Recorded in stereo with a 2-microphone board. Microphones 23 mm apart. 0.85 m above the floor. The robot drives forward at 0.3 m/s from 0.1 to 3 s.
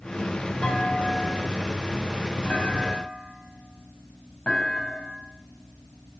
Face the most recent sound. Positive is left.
turn(degrees=50)  # may be behind; listen again after turning